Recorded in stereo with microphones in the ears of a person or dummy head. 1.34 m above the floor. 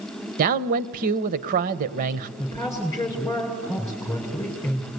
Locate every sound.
0.4 s a man speaking: 45° right (ahead or behind), 1.0 m
2.4 s a woman speaking: 15° left (ahead or behind), 5 m